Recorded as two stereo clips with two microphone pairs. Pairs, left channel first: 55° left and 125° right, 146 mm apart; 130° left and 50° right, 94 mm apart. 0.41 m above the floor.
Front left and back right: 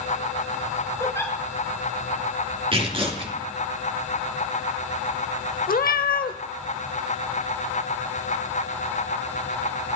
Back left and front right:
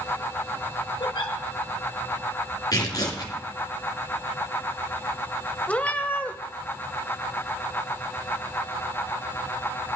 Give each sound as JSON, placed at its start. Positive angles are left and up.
{"t": 1.0, "sound": "a giggle", "azimuth_deg": 120, "distance_m": 1.6}
{"t": 2.7, "sound": "tearing paper", "azimuth_deg": 180, "distance_m": 3.0}
{"t": 5.7, "sound": "a cat meowing", "azimuth_deg": 55, "distance_m": 0.7}